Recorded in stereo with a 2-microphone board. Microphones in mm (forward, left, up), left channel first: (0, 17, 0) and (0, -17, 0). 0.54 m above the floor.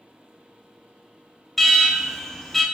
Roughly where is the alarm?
Centre.